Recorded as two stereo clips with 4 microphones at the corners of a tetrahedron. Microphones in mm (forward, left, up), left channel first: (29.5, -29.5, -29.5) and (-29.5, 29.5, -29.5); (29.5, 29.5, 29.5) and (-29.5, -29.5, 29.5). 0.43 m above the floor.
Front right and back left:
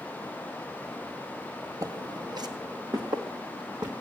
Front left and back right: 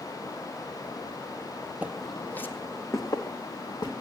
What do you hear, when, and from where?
1.8 s footsteps: 160° left, 0.6 m; by 3.9 s 90° left, 2.5 m